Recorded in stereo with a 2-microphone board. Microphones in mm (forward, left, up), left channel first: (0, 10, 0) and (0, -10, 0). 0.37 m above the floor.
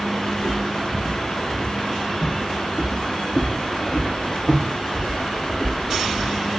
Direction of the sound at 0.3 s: 55° left (ahead or behind).